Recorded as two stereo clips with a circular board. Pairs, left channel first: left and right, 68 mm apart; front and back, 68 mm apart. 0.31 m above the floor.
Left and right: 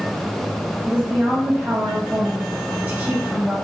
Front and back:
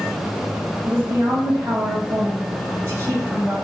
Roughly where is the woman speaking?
Behind right.